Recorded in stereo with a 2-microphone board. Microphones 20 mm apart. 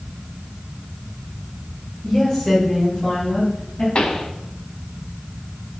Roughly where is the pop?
Left.